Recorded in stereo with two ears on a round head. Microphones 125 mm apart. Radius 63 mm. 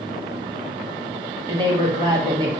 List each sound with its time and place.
1.5 s a woman speaking: 30° right (ahead or behind), 1.0 m